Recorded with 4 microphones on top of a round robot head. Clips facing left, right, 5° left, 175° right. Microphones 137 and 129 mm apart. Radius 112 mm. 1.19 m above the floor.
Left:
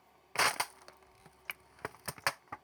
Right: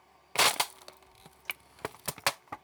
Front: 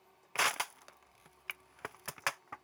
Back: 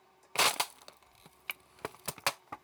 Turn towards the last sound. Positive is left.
turn(degrees=-135)